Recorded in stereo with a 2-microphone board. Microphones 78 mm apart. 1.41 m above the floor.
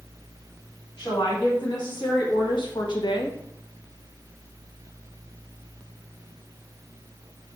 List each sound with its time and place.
1.0 s a woman speaking: 70° left (ahead or behind), 4 m; by 3.4 s 80° left, 0.8 m